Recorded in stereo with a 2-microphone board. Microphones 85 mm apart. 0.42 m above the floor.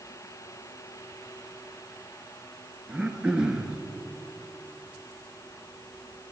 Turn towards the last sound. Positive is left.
turn(degrees=-10)  # may be behind; listen again after turning